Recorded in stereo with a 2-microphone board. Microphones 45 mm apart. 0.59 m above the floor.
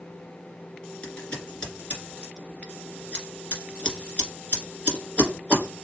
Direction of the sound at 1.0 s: 25° left (ahead or behind).